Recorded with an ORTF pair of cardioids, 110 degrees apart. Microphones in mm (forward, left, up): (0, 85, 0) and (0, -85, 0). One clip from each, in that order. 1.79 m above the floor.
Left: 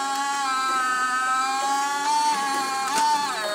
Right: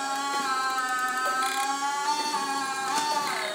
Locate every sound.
0.0 s a machine running: 30° left, 2.5 m